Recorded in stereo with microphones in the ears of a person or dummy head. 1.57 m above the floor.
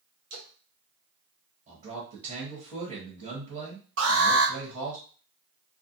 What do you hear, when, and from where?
0.3 s a splash: 50° right (ahead or behind), 1.1 m
1.7 s a man speaking: 45° right (ahead or behind), 1.2 m
4.0 s an alarm: 75° right (ahead or behind), 1.6 m